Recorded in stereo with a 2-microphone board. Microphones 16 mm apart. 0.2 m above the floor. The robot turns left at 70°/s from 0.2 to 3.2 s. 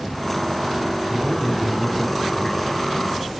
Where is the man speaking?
25° right (ahead or behind), 1.7 m; by 2.7 s 25° left (ahead or behind), 1.7 m.